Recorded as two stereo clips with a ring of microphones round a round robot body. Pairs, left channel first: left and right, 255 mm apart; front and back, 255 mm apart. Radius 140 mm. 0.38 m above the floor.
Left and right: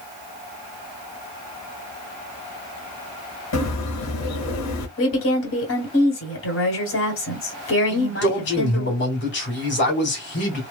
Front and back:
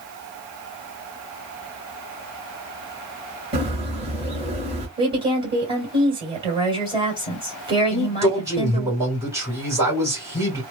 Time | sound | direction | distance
3.5 | a bird | 110° left | 1.0 m
5.0 | a woman speaking | 115° left | 1.7 m
7.9 | a man speaking | 105° left | 1.8 m